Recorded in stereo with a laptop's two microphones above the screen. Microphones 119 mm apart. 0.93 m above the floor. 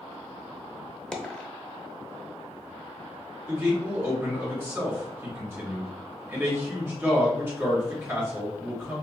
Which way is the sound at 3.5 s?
20° right (ahead or behind).